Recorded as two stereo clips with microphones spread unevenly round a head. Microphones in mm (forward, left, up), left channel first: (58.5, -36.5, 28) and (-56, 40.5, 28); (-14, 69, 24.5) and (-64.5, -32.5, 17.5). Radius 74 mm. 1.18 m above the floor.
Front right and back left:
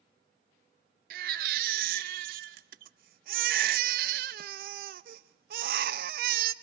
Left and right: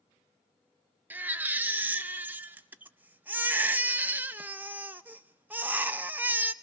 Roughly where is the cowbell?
No cowbell in this recording.